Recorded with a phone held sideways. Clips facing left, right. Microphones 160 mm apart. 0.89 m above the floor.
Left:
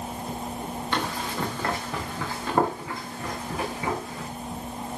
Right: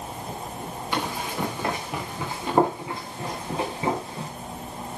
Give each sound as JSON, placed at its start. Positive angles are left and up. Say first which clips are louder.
{"t": 0.9, "sound": "running footsteps", "louder": "right 1 dB", "side_deg": -10, "distance_m": 6.0}